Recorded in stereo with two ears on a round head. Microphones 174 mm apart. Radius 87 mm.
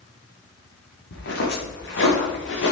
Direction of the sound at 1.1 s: 65° left (ahead or behind).